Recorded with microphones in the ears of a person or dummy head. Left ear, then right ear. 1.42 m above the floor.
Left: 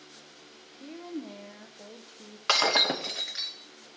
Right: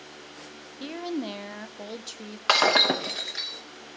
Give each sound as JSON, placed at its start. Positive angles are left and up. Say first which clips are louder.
{"t": 0.8, "sound": "a woman speaking", "louder": "right 8 dB", "side_deg": -80, "distance_m": 0.8}
{"t": 2.5, "sound": "breaking glass", "louder": "right 3 dB", "side_deg": 0, "distance_m": 0.9}